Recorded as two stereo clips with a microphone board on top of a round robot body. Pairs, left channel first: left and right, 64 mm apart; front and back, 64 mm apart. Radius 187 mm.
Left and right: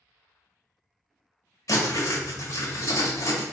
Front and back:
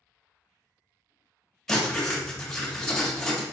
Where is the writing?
85° left, 1.5 m.